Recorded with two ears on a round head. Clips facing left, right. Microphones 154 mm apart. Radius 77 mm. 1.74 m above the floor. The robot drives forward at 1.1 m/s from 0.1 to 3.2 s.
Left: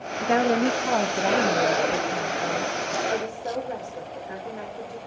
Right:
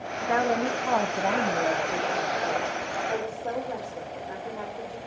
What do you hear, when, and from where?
0.2 s a woman speaking: 30° left (ahead or behind), 0.7 m; by 5.0 s 5° left (ahead or behind), 3.5 m